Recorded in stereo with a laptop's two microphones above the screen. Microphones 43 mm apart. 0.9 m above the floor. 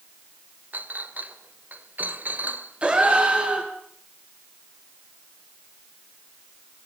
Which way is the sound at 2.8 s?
25° right (ahead or behind).